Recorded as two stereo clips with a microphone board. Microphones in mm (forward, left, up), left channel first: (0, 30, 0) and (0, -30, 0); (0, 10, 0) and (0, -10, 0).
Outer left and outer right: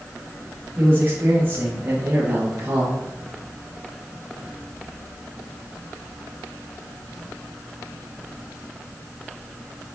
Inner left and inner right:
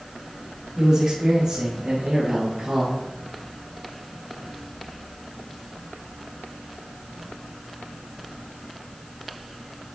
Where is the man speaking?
45° right (ahead or behind), 4 m.